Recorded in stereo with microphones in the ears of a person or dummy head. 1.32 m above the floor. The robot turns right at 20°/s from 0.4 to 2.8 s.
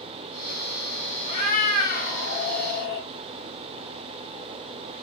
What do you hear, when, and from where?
1.3 s a cat meowing: 70° left, 2.5 m; by 3.1 s 100° left, 2.5 m